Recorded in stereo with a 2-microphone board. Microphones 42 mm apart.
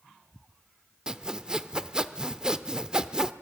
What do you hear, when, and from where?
1.1 s sawing: 15° right (ahead or behind), 0.8 m